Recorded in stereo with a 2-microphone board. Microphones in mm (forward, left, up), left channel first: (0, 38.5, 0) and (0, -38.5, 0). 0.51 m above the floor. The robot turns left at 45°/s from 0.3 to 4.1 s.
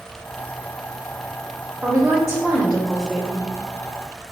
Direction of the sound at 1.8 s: 10° right (ahead or behind).